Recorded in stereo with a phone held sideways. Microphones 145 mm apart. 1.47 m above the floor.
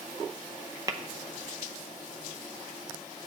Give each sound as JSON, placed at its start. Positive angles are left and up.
{"t": 0.9, "sound": "tapping", "side_deg": -25, "distance_m": 0.6}